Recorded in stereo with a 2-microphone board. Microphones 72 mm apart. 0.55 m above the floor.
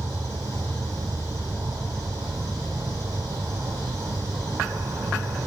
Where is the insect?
55° right (ahead or behind), 0.9 m.